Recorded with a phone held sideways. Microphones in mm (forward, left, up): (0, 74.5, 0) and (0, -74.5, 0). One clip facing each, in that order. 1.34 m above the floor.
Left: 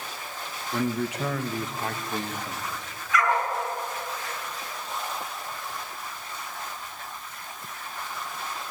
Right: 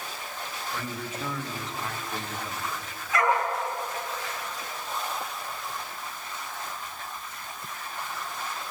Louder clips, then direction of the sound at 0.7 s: Left 11 dB; 70° left (ahead or behind).